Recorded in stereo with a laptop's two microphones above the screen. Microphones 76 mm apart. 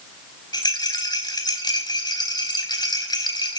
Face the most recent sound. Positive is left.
turn(degrees=65)  # may be behind; listen again after turning